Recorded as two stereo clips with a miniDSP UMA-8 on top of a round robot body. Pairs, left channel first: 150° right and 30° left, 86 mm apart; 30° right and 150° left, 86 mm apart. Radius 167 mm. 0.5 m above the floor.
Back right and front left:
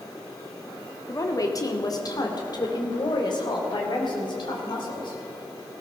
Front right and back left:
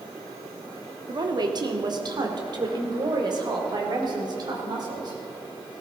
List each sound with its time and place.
1.1 s a woman speaking: 165° left, 2 m; by 5.2 s 175° right, 5 m